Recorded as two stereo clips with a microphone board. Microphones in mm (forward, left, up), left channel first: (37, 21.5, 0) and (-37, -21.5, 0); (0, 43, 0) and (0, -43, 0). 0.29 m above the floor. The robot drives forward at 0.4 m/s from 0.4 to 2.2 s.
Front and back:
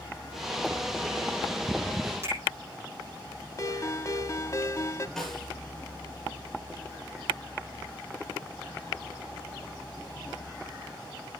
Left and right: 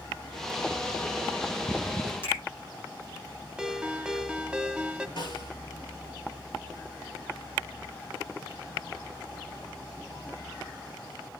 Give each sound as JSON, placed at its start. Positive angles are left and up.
{"t": 2.2, "sound": "a finger snap", "azimuth_deg": 150, "distance_m": 9.5}
{"t": 3.6, "sound": "a ringtone", "azimuth_deg": -15, "distance_m": 0.8}
{"t": 5.2, "sound": "a snare drum", "azimuth_deg": 120, "distance_m": 5.5}